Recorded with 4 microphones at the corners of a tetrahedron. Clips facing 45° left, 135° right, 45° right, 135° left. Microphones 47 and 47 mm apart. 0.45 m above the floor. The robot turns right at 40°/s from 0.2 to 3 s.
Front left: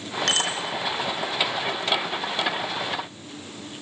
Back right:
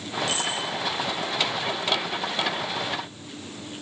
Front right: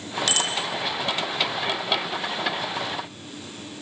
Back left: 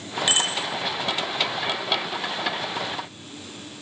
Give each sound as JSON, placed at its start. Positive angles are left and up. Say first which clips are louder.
{"t": 0.3, "sound": "a bicycle bell", "louder": "front left 5 dB, back left 2 dB", "azimuth_deg": 65, "distance_m": 4.5}